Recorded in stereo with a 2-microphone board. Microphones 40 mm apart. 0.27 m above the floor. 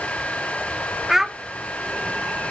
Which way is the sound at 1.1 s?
10° right (ahead or behind).